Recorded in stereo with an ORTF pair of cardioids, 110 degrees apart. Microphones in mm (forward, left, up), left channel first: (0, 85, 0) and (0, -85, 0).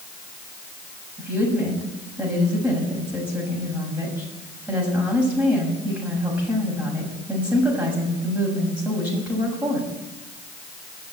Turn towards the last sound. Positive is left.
turn(degrees=-10)